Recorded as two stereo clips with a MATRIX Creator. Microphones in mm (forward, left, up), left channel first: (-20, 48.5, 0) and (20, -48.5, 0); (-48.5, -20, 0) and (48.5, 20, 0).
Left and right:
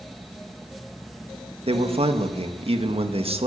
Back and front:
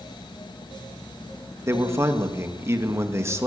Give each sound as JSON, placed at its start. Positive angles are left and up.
{"t": 1.7, "sound": "a man speaking", "azimuth_deg": -40, "distance_m": 2.0}